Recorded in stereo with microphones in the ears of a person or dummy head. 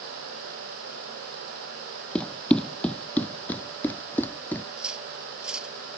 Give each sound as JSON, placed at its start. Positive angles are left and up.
{"t": 2.1, "sound": "running footsteps", "side_deg": 10}
{"t": 4.8, "sound": "cutlery clinking", "side_deg": -5}